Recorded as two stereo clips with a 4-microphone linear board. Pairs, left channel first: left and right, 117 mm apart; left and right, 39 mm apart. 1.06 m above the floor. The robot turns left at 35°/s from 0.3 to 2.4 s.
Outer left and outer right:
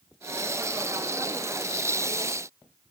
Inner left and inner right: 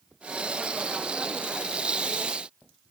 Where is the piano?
I don't hear a piano.